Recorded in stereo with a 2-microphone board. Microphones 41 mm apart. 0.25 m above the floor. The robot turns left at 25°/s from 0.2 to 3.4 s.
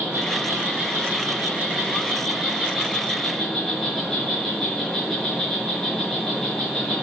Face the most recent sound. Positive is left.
turn(degrees=170)